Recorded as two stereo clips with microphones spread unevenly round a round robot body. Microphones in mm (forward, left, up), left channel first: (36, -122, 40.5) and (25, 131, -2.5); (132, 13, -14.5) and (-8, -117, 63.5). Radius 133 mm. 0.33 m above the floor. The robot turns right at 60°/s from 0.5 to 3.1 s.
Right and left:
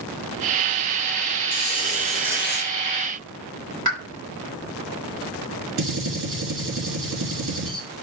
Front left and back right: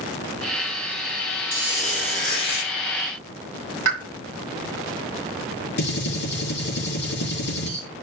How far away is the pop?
About 2.5 m.